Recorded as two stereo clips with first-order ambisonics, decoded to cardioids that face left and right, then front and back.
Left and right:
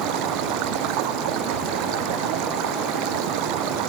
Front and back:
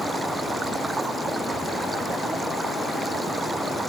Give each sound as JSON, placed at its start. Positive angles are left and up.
{"t": 0.0, "sound": "running water", "azimuth_deg": -100}